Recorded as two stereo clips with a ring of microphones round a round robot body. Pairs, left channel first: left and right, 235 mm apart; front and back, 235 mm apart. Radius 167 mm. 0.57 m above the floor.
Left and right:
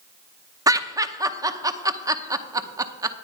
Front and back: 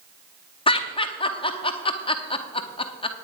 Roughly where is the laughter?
Ahead right.